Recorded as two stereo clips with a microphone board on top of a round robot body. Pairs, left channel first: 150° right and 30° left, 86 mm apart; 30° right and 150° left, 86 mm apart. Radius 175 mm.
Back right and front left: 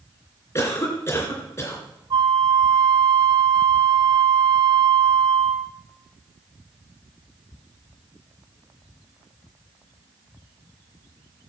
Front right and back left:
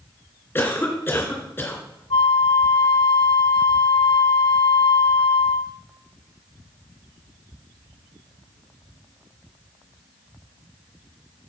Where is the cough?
100° right, 3 m.